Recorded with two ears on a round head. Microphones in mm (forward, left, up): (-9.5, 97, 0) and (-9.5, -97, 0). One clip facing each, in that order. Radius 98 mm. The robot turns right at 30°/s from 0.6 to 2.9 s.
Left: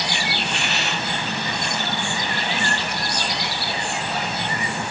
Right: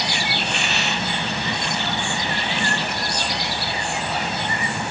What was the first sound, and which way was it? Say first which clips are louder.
A hiss: right 1 dB; 70° right (ahead or behind).